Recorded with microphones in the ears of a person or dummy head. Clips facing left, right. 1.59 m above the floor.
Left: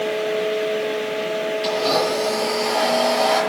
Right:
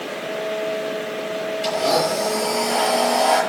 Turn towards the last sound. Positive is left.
turn(degrees=0)  # may be behind; listen again after turning